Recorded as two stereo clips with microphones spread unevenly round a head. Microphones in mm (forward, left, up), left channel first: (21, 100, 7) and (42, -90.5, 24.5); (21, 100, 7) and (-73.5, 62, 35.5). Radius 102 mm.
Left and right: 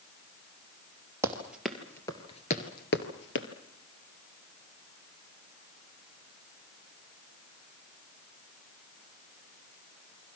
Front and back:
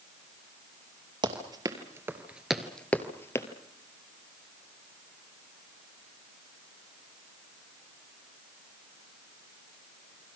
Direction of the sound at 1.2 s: 155° right.